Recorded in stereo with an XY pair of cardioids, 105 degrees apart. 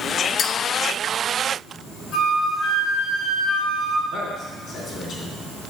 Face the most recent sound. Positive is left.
turn(degrees=65)